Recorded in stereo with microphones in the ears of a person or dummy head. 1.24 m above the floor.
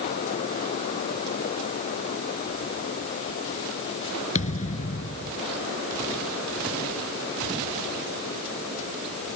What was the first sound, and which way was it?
A thud, 35° left (ahead or behind).